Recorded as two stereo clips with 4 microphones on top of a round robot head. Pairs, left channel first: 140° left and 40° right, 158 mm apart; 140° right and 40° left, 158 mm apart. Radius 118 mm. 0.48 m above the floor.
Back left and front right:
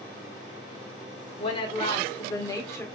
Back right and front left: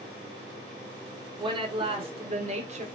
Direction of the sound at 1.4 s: 95° left.